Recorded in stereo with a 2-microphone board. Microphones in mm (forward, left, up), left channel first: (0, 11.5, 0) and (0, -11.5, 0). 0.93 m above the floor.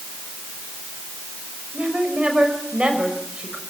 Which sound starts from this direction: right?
A woman speaking, at 1.7 s.